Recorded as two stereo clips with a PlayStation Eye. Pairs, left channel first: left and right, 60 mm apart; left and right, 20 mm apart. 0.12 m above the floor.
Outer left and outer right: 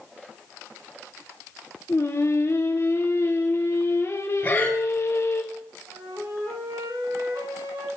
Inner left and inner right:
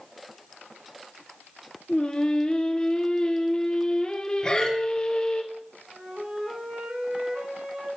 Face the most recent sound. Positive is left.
turn(degrees=-75)  # may be behind; listen again after turning